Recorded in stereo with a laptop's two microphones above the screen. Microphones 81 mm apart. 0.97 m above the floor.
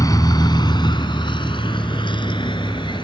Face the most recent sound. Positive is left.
turn(degrees=75)  # may be behind; listen again after turning